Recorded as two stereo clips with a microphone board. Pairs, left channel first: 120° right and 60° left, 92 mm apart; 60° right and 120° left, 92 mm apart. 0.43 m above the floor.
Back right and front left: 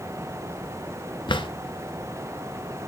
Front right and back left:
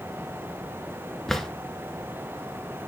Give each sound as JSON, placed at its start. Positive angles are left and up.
{"t": 1.3, "sound": "a drawer", "azimuth_deg": -150, "distance_m": 1.2}